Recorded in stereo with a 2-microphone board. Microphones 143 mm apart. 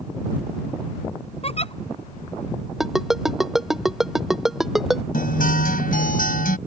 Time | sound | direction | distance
1.4 | a giggle | 45° left (ahead or behind) | ?
2.8 | a ringtone | 5° right (ahead or behind) | ?
5.1 | a guitar | 80° left | ?